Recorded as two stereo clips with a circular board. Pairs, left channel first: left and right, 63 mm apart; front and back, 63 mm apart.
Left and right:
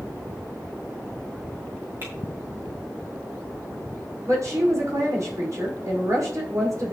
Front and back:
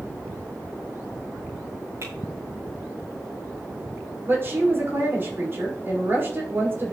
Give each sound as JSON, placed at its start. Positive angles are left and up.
{"t": 2.0, "sound": "typing on a keyboard", "azimuth_deg": -135, "distance_m": 4.0}
{"t": 4.3, "sound": "a woman speaking", "azimuth_deg": -125, "distance_m": 5.5}